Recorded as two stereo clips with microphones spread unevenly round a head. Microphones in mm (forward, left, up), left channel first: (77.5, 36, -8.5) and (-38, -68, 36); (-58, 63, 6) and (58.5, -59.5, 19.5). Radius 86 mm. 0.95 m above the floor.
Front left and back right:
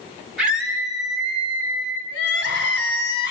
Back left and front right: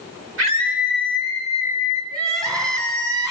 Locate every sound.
0.4 s a scream: 55° right, 6.5 m; by 2.0 s 50° right, 7.5 m
2.1 s crying: 25° left, 3.5 m